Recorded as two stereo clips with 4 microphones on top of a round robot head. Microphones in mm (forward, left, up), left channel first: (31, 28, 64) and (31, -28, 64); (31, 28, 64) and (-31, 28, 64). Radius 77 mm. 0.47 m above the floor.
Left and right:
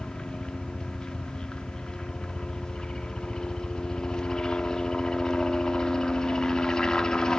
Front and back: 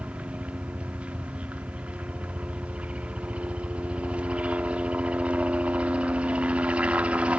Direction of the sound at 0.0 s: 145° left.